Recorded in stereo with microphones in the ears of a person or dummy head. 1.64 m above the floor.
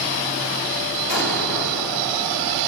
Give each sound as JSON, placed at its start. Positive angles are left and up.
{"t": 1.1, "sound": "an explosion", "side_deg": 65, "distance_m": 4.0}